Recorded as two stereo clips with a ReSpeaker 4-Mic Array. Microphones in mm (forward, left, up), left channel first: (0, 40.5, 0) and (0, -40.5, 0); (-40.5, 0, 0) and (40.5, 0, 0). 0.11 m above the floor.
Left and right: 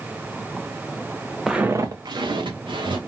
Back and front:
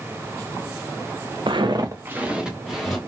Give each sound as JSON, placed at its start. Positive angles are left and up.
{"t": 1.5, "sound": "footsteps", "azimuth_deg": -5, "distance_m": 0.5}